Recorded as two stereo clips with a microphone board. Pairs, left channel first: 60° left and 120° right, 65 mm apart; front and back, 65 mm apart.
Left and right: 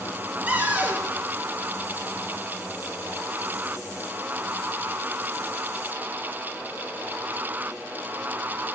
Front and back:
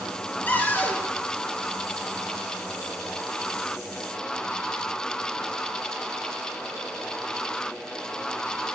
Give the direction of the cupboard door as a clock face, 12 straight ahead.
2 o'clock.